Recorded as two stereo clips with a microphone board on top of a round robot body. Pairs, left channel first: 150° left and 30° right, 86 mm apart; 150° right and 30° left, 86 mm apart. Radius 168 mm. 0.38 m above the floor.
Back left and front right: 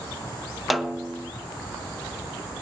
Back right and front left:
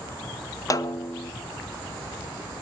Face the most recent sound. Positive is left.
turn(degrees=-120)